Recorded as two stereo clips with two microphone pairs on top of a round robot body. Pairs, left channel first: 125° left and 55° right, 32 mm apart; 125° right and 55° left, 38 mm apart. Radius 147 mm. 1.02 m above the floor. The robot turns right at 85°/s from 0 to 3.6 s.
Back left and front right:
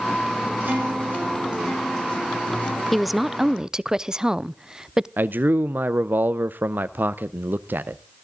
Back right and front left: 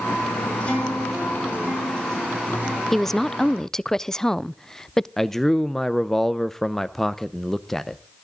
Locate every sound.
0.6 s a guitar: 75° right, 6 m; by 2.8 s 115° left, 6 m
2.9 s a woman speaking: 175° right, 0.6 m; by 5.1 s 115° right, 0.6 m
5.2 s a man speaking: 50° right, 0.6 m